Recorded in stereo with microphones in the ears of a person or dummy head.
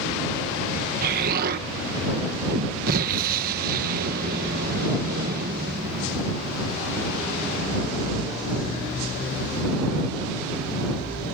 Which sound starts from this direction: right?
An explosion, at 1.0 s.